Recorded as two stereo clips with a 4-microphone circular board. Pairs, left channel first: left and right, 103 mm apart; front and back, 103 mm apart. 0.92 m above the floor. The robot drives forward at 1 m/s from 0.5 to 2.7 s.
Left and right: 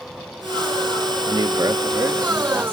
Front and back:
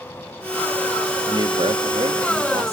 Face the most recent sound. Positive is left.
turn(degrees=-165)